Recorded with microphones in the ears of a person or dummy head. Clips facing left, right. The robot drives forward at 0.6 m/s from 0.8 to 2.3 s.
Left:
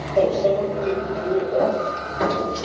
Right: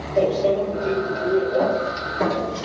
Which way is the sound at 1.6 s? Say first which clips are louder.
Even; centre (ahead or behind).